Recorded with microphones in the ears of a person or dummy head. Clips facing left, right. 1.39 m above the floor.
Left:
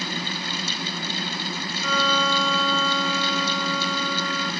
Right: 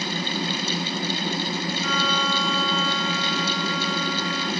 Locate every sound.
1.8 s a violin: 85° left, 4.5 m